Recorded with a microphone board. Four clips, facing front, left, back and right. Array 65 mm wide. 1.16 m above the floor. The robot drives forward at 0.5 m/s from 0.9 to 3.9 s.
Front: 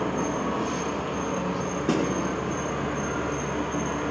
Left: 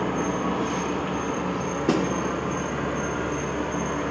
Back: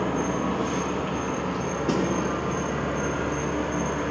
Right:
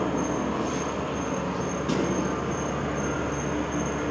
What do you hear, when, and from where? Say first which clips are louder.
0.0 s an insect: left 1 dB, back 1 dB; 120° left, 2.5 m; by 4.1 s 140° left, 3.5 m
1.9 s a snare drum: left 4 dB, front 1 dB; 80° left, 1.8 m; by 2.1 s 85° left, 1.8 m